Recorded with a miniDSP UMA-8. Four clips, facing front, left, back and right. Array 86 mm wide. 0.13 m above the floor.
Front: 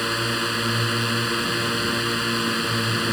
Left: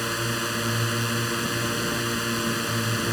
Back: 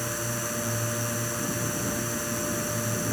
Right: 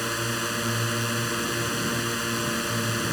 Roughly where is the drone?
Ahead.